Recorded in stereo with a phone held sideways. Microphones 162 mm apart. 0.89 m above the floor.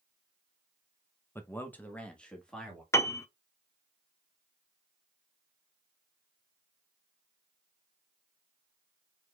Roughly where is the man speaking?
Centre.